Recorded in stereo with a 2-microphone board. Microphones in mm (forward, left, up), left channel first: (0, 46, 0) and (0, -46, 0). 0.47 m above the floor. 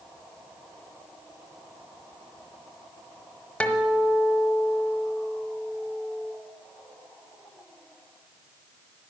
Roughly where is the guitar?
Centre.